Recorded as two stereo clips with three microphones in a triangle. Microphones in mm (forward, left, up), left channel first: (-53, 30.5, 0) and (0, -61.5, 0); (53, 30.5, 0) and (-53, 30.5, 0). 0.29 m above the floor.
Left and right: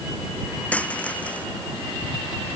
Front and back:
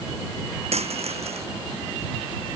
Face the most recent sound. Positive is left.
turn(degrees=-165)